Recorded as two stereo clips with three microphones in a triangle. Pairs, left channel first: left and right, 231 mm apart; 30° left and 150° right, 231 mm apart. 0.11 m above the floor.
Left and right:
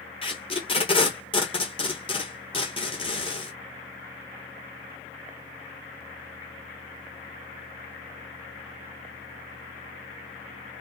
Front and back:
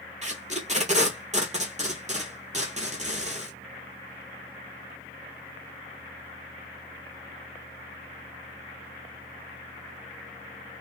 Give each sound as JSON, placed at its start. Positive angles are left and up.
{"t": 0.2, "sound": "tape being pulled", "azimuth_deg": 155, "distance_m": 1.0}